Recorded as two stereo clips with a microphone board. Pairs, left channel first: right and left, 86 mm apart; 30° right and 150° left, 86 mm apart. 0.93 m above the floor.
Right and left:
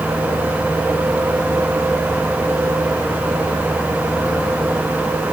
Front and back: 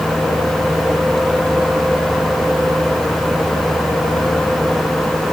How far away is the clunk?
No clunk in this recording.